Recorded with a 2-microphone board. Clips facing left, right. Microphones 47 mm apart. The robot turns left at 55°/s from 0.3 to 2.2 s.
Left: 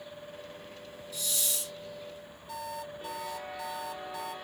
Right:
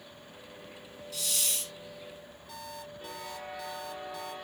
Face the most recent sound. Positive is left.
turn(degrees=15)  # may be behind; listen again after turning